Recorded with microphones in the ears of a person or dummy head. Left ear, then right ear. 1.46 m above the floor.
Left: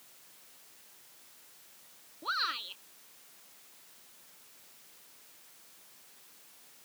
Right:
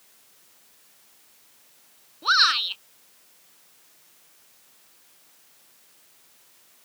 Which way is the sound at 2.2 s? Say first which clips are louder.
Right 14 dB; 55° right (ahead or behind).